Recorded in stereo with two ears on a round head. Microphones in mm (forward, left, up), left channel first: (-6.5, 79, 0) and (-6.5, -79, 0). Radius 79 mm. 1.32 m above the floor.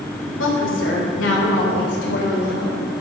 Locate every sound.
0.4 s a woman speaking: 80° left, 4 m; by 2.9 s 60° left (ahead or behind), 4.5 m